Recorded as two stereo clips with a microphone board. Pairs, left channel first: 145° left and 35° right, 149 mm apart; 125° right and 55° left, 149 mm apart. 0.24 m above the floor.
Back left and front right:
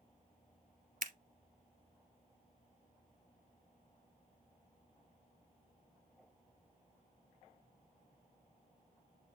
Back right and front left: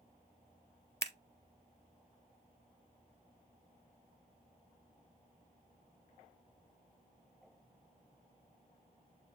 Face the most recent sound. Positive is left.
turn(degrees=-55)